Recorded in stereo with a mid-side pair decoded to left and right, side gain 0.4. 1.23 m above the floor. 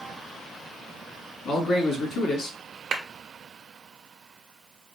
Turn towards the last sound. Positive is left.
turn(degrees=-60)